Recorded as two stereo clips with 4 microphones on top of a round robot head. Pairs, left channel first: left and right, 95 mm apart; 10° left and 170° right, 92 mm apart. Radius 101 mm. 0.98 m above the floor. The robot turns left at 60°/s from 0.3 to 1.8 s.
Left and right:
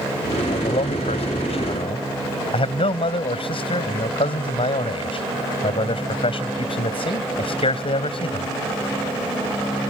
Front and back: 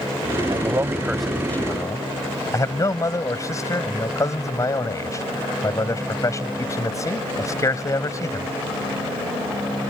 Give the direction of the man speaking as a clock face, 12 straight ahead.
7 o'clock.